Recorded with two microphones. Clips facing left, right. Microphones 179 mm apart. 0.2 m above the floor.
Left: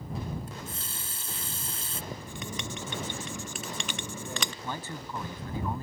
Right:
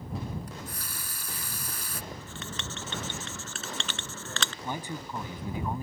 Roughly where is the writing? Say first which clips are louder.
Left 2 dB; centre.